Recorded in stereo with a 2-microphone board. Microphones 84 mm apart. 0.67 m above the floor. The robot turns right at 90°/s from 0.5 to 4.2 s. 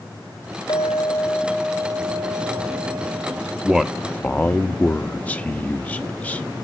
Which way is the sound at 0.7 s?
115° left.